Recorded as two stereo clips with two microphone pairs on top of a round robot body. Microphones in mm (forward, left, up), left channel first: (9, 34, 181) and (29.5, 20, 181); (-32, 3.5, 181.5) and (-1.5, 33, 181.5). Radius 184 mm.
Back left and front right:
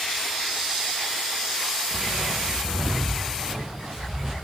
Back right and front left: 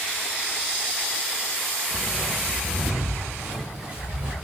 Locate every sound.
1.9 s footsteps: 30° right, 2 m; by 4.3 s 20° left, 2.5 m